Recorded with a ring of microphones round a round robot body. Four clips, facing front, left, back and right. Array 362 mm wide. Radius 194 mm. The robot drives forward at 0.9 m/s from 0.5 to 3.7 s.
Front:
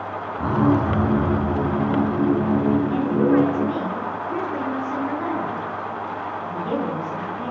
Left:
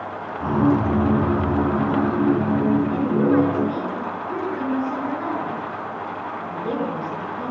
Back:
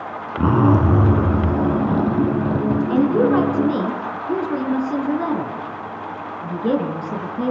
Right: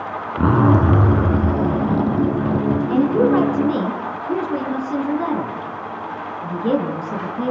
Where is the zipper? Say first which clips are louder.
Right 3 dB, back 3 dB; 130° right, 3 m; by 2.8 s 150° right, 4.5 m.